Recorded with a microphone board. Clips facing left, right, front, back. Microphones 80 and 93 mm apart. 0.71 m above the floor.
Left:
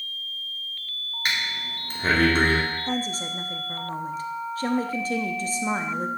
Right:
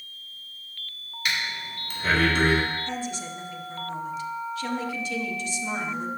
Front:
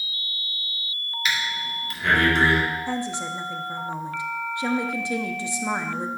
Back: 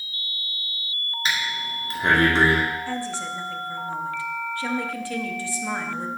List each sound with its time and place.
1.2 s breathing: 130° left, 1.7 m
2.9 s a woman speaking: 60° left, 0.7 m